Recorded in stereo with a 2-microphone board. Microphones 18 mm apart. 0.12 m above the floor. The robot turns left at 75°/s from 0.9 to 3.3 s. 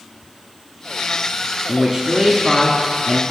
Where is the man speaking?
25° right (ahead or behind), 1.1 m; by 3.2 s 5° left (ahead or behind), 1.1 m.